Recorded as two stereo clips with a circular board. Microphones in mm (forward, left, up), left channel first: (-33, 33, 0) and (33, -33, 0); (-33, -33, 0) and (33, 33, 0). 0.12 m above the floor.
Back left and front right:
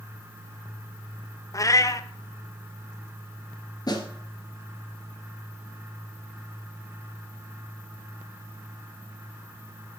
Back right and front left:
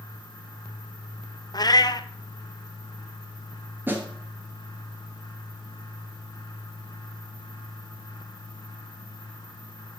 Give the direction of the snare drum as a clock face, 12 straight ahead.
8 o'clock.